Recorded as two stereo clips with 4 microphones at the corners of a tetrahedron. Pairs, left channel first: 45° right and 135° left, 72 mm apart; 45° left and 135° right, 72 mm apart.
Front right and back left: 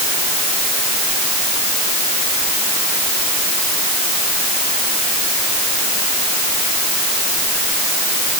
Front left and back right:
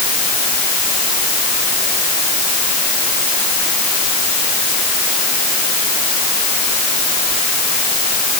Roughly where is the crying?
I don't hear crying.